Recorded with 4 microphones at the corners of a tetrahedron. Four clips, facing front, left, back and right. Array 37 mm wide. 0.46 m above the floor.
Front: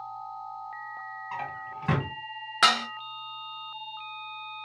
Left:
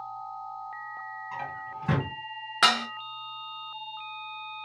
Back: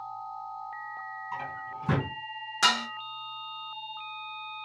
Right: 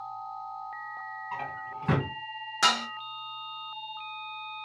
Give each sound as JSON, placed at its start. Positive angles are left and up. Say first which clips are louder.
{"t": 1.3, "sound": "a drawer", "louder": "right 1 dB, front 2 dB", "azimuth_deg": -20, "distance_m": 1.4}
{"t": 2.6, "sound": "dishes clattering", "louder": "left 2 dB, front 3 dB", "azimuth_deg": 50, "distance_m": 0.5}